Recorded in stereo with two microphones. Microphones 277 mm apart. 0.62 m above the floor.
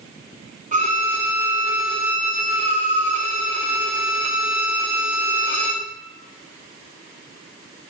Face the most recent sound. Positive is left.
turn(degrees=-30)  # may be behind; listen again after turning